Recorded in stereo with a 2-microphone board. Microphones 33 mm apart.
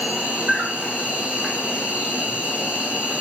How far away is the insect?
About 2.5 m.